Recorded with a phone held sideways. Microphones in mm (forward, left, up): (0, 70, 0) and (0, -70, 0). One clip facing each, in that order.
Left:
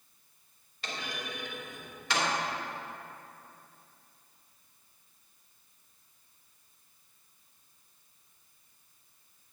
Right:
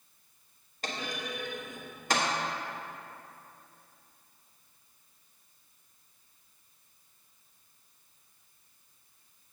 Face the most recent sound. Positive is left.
turn(degrees=-45)  # may be behind; listen again after turning